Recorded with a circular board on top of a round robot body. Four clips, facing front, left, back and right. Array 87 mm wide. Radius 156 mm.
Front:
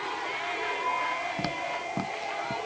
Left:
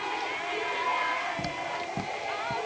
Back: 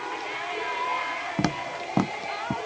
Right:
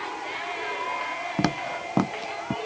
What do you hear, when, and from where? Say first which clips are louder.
1.4 s footsteps: right 6 dB, back 3 dB; 125° right; by 2.5 s 130° right